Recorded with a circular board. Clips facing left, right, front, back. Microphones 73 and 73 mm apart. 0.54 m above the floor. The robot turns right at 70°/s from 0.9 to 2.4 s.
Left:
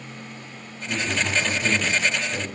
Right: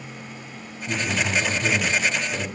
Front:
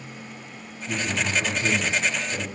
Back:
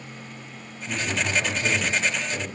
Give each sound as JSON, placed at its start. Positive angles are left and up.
{"t": 0.9, "sound": "a man speaking", "azimuth_deg": -125, "distance_m": 1.8}